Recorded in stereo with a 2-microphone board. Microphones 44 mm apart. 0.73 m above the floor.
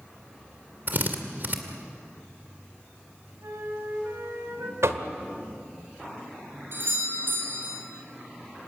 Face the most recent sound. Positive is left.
turn(degrees=-55)  # may be behind; listen again after turning